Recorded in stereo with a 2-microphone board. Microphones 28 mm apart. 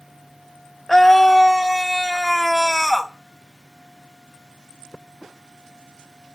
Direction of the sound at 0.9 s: 10° left (ahead or behind).